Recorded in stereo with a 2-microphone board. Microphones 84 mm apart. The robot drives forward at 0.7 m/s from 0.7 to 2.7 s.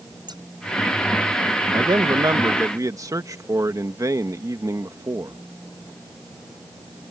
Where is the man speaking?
65° right (ahead or behind); by 5.4 s 45° right (ahead or behind).